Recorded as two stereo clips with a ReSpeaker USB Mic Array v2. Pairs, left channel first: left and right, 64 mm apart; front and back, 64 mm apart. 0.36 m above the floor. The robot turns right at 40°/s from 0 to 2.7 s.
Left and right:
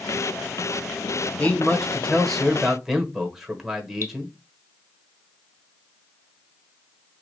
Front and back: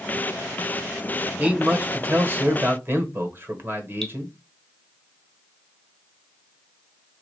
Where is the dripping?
75° right, 1.2 m.